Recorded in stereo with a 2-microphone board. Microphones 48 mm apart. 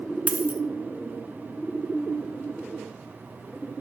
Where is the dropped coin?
30° right (ahead or behind), 0.8 m.